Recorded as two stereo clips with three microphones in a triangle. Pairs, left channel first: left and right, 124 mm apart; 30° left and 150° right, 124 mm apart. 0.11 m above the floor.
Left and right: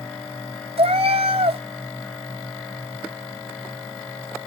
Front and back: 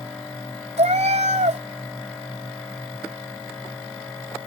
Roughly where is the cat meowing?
Behind right.